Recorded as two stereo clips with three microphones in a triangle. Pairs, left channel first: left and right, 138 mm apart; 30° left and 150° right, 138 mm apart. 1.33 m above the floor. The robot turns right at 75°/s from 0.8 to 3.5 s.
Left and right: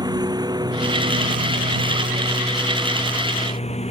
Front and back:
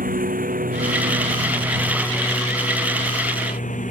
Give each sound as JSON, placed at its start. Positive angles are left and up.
{"t": 0.0, "sound": "a lawn mower", "azimuth_deg": -150}